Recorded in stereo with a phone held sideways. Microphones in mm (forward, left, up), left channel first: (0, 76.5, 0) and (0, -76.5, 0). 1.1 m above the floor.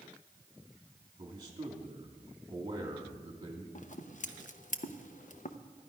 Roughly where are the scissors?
Left.